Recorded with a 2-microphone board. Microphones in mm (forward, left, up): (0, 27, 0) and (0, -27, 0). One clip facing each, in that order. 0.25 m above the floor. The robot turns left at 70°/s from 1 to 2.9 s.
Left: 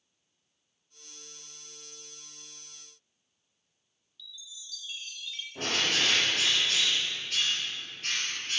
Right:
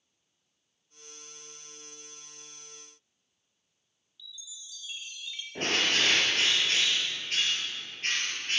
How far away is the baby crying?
No baby crying in this recording.